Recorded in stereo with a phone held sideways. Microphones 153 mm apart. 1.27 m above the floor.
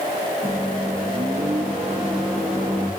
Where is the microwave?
10° right (ahead or behind), 1.7 m.